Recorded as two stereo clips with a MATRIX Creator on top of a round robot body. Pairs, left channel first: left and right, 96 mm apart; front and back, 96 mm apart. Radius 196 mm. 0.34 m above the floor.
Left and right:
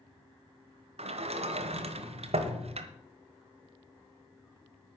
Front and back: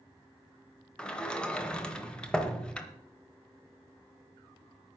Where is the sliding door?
80° right, 1.1 m.